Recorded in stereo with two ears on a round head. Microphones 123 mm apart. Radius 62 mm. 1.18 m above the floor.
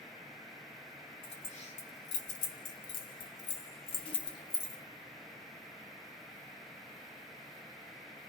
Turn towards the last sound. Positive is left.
turn(degrees=20)  # may be behind; listen again after turning